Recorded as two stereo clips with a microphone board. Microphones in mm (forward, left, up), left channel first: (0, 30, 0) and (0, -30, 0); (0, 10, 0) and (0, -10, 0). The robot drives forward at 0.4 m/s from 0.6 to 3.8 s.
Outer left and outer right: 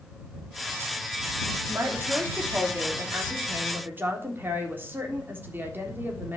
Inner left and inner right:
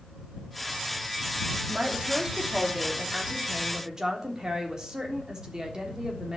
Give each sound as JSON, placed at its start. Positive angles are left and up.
{"t": 1.7, "sound": "a woman speaking", "side_deg": -45, "distance_m": 3.0}